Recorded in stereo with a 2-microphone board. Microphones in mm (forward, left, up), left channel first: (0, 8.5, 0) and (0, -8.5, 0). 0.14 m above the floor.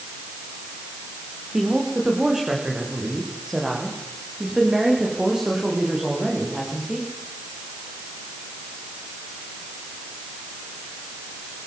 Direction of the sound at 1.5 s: 65° right (ahead or behind).